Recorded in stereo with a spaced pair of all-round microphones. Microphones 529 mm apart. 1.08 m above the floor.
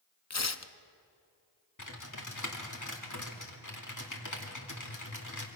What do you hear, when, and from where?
0.3 s tearing paper: 30° left (ahead or behind), 0.6 m
1.8 s typing on a keyboard: 35° left (ahead or behind), 2 m